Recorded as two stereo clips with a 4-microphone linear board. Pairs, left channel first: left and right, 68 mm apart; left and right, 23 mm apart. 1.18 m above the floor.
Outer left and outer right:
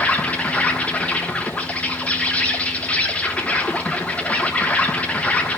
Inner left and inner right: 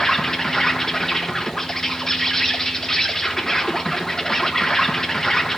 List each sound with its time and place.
0.0 s an insect: 20° left (ahead or behind), 1.4 m